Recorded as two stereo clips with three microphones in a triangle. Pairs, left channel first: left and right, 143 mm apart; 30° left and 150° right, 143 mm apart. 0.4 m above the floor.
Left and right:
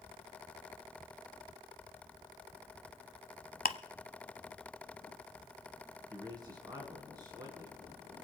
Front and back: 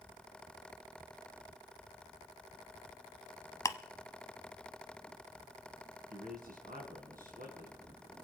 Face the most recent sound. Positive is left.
turn(degrees=-150)